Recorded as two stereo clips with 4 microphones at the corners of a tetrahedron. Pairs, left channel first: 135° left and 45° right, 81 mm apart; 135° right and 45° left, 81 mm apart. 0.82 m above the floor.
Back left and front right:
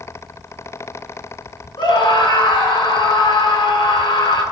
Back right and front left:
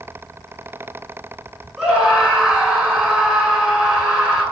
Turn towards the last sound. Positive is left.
turn(degrees=120)